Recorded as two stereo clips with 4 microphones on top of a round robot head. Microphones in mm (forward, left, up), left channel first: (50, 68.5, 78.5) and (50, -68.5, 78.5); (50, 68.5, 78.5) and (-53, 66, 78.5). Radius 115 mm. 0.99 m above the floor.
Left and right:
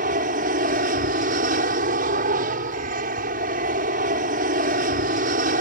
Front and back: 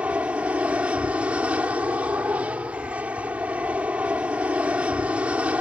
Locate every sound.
0.0 s an aircraft: 100° right